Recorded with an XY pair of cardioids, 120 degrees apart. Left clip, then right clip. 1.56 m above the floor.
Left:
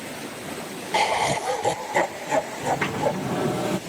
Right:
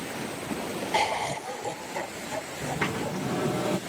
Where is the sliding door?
10° left.